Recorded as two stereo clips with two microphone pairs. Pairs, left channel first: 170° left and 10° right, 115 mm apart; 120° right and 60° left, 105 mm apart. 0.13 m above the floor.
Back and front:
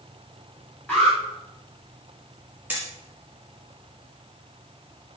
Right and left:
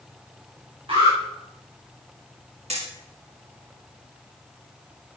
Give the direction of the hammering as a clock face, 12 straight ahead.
10 o'clock.